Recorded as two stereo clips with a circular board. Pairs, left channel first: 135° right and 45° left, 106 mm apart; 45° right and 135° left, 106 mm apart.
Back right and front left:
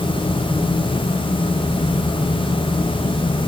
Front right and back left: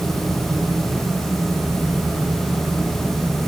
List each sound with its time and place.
Only background noise.